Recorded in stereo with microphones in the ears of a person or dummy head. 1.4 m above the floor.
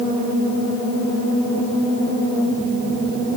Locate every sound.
Only background noise.